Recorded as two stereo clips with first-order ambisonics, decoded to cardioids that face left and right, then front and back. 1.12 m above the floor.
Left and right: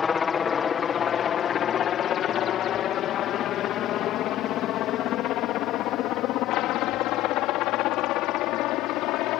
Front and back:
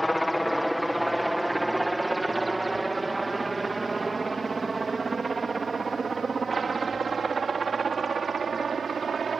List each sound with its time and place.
0.0 s a helicopter: 85° left; by 9.4 s 115° left